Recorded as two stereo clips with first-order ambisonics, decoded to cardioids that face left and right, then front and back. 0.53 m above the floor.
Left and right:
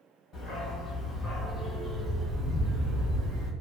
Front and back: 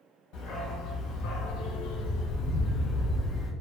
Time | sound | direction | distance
0.3 | a dog barking | 35° left | 1.3 m